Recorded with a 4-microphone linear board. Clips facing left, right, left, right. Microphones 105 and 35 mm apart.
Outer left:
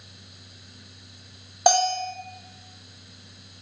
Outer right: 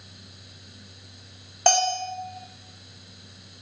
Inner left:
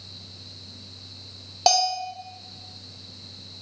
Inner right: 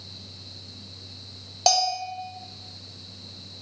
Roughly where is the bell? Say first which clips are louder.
Outer left 2 dB, inner left 1 dB; centre.